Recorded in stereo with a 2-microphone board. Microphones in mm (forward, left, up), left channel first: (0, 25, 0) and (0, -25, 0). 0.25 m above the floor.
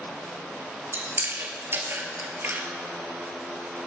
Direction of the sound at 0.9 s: 50° right (ahead or behind).